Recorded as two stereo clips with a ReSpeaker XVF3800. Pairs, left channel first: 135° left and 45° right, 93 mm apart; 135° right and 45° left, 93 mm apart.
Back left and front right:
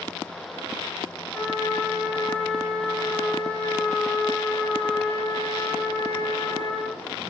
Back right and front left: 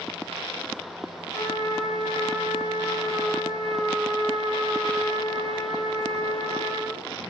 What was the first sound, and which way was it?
A trumpet, straight behind.